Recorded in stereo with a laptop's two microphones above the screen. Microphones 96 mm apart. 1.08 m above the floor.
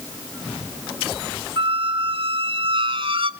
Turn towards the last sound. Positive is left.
turn(degrees=-60)  # may be behind; listen again after turning